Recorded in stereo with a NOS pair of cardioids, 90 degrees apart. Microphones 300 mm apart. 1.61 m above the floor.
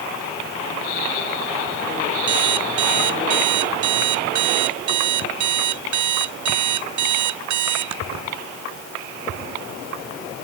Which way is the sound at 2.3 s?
70° right.